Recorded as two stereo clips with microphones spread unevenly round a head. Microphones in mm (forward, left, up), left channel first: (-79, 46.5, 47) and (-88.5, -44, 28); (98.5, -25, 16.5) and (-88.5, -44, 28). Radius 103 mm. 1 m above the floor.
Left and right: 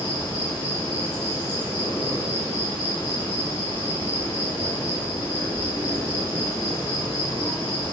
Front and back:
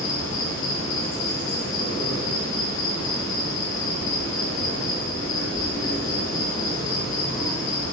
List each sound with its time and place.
0.0 s an insect: 5° left, 1.5 m